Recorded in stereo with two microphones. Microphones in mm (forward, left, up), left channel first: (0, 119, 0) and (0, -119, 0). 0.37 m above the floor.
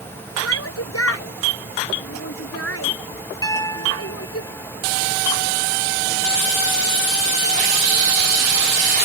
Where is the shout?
75° left (ahead or behind).